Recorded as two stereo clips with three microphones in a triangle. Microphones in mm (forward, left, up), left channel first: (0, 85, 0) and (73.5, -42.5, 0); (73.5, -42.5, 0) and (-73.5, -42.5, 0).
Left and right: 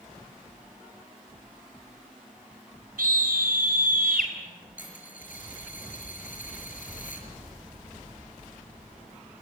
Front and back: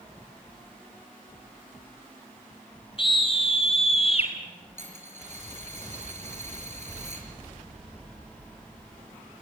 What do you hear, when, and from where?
3.0 s a scream: 55° right, 4.5 m; by 4.3 s 45° right, 4.5 m
4.8 s a dropped coin: 145° left, 5 m